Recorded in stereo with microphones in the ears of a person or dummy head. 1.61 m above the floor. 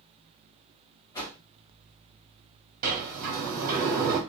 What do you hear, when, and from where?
1.1 s a whoosh: 15° left (ahead or behind), 1.4 m
2.8 s a sliding door: 40° right (ahead or behind), 1.6 m